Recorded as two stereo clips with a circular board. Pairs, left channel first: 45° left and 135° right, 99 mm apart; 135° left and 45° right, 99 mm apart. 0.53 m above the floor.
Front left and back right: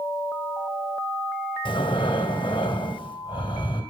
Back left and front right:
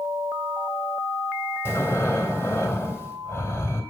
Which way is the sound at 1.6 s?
70° left.